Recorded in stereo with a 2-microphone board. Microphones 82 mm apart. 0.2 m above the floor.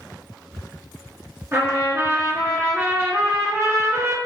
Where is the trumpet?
35° right (ahead or behind), 2.5 m.